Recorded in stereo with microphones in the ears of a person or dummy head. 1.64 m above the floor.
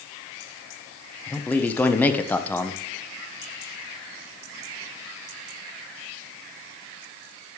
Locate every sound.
1.3 s a man speaking: 5° left (ahead or behind), 1.2 m